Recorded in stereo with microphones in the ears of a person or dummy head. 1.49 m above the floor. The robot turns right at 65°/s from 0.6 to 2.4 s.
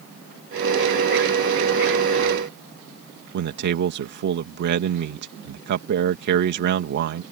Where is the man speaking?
55° right (ahead or behind).